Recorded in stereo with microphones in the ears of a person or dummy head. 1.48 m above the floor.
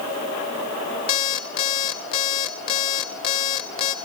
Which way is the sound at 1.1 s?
25° left (ahead or behind).